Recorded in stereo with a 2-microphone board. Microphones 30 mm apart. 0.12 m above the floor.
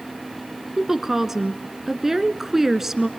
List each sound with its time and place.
0.8 s a woman speaking: 10° right (ahead or behind), 1.1 m